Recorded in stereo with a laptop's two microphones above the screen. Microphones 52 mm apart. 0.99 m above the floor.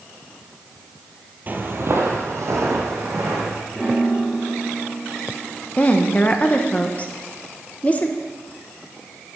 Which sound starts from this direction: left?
A woman speaking, at 5.8 s.